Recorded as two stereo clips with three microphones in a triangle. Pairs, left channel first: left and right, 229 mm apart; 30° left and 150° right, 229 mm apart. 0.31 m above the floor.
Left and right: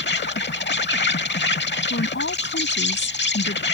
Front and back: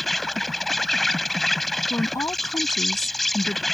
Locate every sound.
0.0 s an insect: 120° left
1.9 s a woman speaking: 105° left